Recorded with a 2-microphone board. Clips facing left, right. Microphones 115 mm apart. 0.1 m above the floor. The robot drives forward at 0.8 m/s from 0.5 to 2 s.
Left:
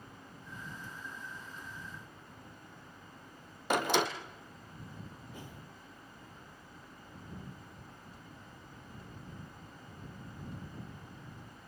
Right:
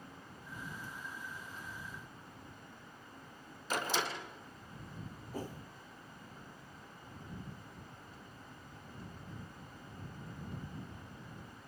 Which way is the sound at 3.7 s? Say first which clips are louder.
Left 6 dB; 65° left (ahead or behind).